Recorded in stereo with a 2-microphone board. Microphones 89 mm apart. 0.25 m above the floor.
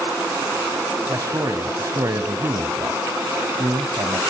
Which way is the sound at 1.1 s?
40° right (ahead or behind).